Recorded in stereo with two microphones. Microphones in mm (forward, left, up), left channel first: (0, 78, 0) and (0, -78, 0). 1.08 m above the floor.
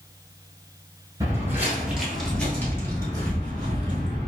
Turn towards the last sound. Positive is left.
turn(degrees=35)  # may be behind; listen again after turning